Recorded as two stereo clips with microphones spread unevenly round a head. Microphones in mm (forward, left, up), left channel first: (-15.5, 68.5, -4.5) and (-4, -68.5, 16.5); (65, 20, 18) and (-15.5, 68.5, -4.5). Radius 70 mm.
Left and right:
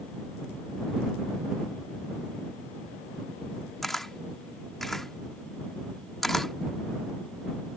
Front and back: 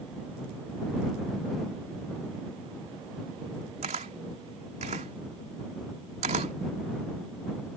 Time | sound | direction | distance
3.8 | a camera shutter | 170° right | ?